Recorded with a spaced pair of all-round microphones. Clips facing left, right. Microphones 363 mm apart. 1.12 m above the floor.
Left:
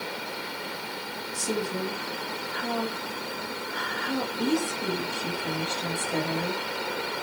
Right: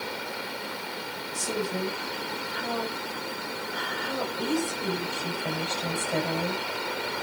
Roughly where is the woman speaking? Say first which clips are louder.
Left 1 dB; left.